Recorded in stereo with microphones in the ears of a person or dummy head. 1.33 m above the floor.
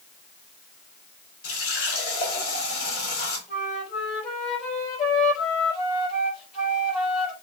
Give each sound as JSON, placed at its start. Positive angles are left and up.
{"t": 1.4, "sound": "a running tap", "side_deg": 55, "distance_m": 4.0}
{"t": 3.5, "sound": "a flute", "side_deg": 40, "distance_m": 5.0}